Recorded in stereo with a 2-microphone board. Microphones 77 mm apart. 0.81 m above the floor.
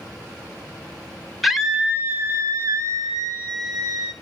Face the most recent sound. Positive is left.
turn(degrees=-75)  # may be behind; listen again after turning